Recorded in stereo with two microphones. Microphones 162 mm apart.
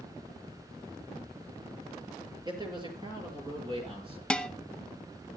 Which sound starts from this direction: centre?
Dishes clattering, at 4.3 s.